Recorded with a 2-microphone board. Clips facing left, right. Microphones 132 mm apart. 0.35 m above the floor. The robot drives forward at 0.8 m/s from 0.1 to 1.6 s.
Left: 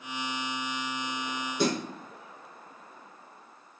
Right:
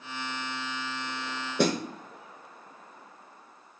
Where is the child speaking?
I don't hear a child speaking.